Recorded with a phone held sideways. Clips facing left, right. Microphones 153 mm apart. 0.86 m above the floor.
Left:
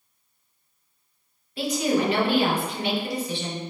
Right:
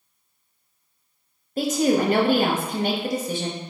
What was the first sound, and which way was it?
A woman speaking, 45° right (ahead or behind).